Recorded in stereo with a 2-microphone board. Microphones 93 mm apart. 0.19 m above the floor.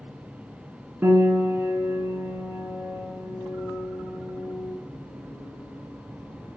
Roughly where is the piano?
Right.